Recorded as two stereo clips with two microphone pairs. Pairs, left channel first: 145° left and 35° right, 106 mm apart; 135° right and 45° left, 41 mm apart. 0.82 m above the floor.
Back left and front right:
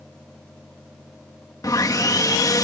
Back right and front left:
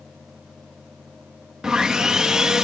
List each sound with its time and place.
1.6 s sawing: 110° left